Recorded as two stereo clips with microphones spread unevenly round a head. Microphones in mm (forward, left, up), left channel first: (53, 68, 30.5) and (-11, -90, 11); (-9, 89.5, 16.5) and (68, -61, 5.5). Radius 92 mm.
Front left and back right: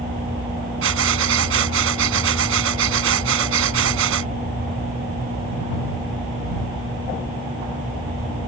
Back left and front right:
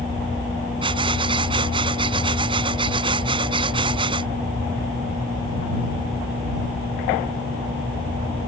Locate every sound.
0.8 s breathing: 130° right